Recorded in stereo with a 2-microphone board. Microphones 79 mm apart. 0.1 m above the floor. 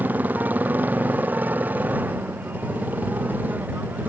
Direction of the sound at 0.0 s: 20° right (ahead or behind).